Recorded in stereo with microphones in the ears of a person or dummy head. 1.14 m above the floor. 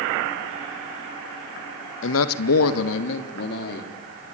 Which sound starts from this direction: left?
A man speaking, at 2.0 s.